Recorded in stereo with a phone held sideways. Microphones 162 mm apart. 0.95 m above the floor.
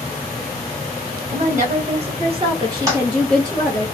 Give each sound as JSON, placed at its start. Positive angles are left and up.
{"t": 1.3, "sound": "a woman speaking", "side_deg": -55, "distance_m": 1.2}
{"t": 2.9, "sound": "a toilet flushing", "side_deg": -20, "distance_m": 1.0}